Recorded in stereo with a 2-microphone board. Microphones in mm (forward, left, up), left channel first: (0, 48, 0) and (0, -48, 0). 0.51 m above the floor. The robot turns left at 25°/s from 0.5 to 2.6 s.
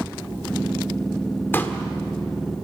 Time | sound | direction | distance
1.5 | a pop | 20° left (ahead or behind) | 1.5 m